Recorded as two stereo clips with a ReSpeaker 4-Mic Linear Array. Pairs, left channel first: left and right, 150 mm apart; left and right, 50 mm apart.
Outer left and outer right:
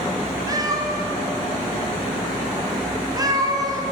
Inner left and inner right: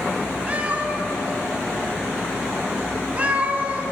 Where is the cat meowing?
25° right (ahead or behind), 0.8 m.